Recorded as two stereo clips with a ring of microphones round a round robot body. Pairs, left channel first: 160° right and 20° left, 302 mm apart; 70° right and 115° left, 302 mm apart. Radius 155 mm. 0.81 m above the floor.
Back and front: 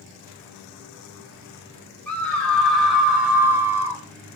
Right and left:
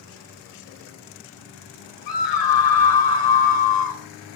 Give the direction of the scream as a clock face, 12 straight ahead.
2 o'clock.